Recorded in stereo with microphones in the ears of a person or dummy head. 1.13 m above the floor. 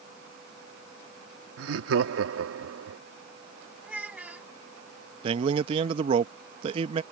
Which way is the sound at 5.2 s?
30° right (ahead or behind).